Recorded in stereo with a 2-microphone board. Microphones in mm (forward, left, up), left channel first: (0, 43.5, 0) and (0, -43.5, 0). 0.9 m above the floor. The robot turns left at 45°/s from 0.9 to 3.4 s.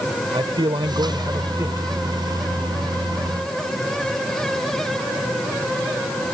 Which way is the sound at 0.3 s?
110° right.